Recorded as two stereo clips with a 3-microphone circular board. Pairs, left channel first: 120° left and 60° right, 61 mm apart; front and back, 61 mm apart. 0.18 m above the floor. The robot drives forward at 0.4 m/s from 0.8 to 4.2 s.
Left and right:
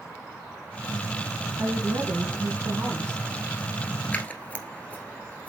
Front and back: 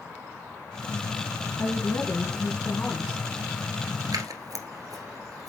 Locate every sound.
1.6 s a woman speaking: 35° right, 1.7 m; by 3.2 s 60° right, 1.3 m
4.1 s scissors: 170° right, 1.1 m